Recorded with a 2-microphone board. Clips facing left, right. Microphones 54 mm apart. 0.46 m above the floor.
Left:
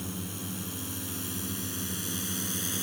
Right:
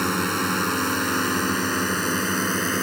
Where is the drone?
75° right (ahead or behind); by 2.8 s 55° right (ahead or behind).